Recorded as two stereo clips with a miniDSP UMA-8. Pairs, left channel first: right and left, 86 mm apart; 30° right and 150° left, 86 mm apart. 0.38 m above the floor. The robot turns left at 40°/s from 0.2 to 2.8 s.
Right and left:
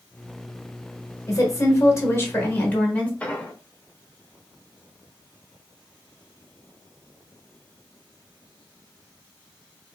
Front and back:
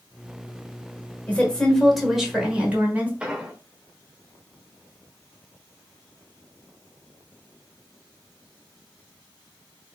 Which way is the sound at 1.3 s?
90° right.